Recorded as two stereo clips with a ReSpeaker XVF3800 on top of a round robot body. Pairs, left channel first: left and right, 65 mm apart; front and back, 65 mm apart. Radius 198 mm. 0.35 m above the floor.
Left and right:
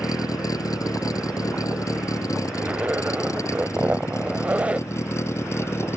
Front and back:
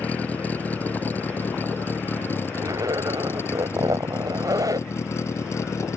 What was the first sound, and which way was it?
A vehicle, 70° left.